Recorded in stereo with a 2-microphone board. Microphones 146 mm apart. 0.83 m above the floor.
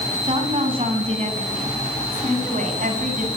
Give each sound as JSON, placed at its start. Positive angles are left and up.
{"t": 0.2, "sound": "a woman speaking", "side_deg": -35, "distance_m": 6.5}